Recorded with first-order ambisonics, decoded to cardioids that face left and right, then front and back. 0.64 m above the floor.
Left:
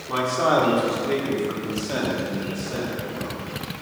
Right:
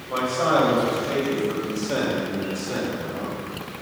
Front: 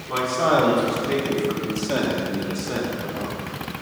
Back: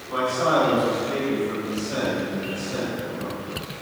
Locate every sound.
0.1 s a man speaking: 65° left, 1.9 m; by 3.4 s 25° right, 1.5 m